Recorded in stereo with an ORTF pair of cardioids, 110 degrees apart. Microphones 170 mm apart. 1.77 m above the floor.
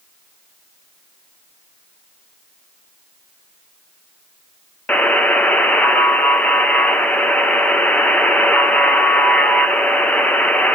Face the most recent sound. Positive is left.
turn(degrees=10)